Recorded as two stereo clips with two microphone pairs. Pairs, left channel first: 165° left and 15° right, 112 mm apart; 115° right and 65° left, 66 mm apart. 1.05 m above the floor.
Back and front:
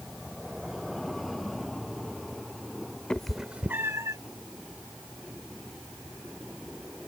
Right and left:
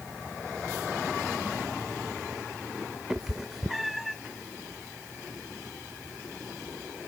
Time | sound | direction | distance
3.1 | a cat meowing | 105° left | ?